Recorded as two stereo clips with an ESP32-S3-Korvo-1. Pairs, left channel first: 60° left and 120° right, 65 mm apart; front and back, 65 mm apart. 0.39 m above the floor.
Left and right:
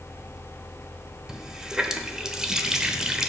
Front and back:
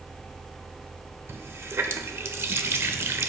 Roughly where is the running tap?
Behind.